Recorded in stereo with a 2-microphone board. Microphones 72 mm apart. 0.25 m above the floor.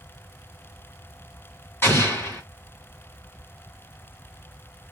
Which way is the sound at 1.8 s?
35° left (ahead or behind).